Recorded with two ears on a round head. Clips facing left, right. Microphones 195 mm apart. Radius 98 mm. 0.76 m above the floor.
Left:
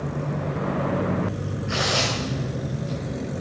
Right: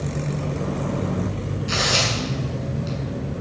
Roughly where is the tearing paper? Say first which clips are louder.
Even; right.